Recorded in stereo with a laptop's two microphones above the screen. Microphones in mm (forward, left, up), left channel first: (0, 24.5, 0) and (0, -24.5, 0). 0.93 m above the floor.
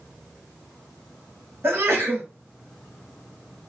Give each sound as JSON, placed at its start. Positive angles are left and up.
{"t": 1.6, "sound": "a sneeze", "side_deg": -55, "distance_m": 1.7}